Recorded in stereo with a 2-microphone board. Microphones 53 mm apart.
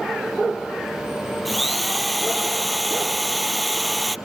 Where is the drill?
Centre (ahead or behind).